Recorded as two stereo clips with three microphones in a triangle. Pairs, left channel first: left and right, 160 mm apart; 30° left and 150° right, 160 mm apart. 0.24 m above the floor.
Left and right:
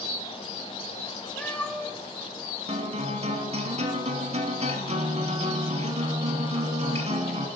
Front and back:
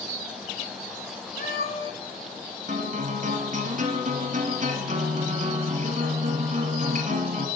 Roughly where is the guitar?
Behind right.